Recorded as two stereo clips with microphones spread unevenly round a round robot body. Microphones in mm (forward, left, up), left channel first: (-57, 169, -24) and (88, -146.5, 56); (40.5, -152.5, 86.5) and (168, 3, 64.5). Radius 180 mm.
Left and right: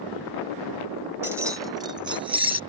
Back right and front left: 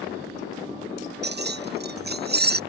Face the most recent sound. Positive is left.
turn(degrees=15)